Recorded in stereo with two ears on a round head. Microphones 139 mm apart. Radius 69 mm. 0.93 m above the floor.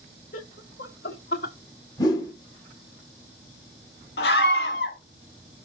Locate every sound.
0.3 s laughter: 50° left (ahead or behind), 1.2 m; by 1.6 s 75° left (ahead or behind), 1.6 m
2.0 s a whoosh: 25° left (ahead or behind), 1.7 m
4.2 s a scream: 75° left (ahead or behind), 1.8 m